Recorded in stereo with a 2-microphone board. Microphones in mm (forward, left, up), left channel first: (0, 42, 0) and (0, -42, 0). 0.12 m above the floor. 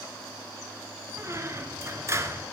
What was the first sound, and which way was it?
A squeak, 35° right (ahead or behind).